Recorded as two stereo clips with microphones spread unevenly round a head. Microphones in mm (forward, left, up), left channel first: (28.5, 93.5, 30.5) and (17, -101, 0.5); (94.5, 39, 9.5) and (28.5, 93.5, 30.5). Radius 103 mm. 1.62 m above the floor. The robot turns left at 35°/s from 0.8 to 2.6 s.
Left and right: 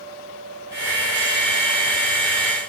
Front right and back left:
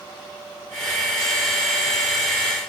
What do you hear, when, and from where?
Only background noise.